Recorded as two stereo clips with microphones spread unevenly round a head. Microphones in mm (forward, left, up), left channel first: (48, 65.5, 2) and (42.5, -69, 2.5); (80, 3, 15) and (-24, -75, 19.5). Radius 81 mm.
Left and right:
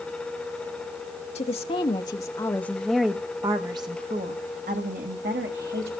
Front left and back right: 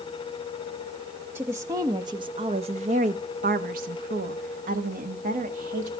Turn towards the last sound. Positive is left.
turn(degrees=-115)